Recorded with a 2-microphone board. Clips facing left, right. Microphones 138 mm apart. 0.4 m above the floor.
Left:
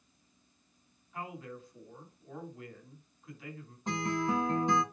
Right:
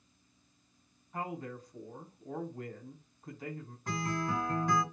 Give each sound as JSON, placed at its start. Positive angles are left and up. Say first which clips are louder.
{"t": 1.1, "sound": "a man speaking", "louder": "right 3 dB", "side_deg": -40, "distance_m": 4.0}
{"t": 3.9, "sound": "a guitar", "louder": "left 3 dB", "side_deg": 20, "distance_m": 2.5}